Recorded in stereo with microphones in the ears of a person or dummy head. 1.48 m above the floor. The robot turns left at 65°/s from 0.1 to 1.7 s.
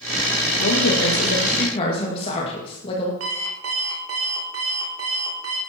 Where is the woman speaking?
105° left, 2 m; by 3.1 s 30° left, 2 m.